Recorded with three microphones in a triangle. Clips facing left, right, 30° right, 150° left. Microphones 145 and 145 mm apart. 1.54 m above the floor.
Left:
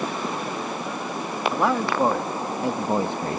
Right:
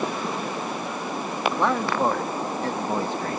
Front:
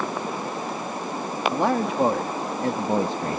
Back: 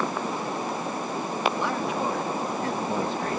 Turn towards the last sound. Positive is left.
turn(degrees=30)